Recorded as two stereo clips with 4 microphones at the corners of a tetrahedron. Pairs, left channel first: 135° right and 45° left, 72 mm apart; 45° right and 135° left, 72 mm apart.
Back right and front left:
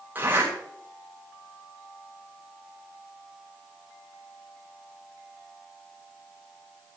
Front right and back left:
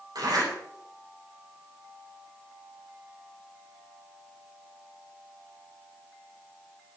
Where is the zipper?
110° left, 7 m.